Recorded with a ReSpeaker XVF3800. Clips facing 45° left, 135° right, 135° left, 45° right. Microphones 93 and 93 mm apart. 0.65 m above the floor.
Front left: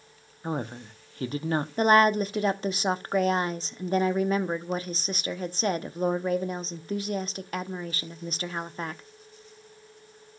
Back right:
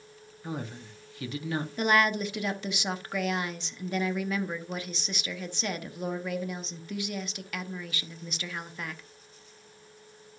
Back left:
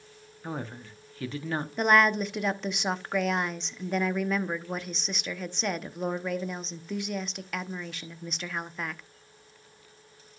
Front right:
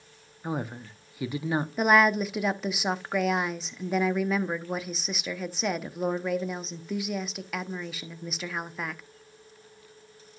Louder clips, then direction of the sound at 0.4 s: Front left 5 dB, front right 4 dB; 25° left.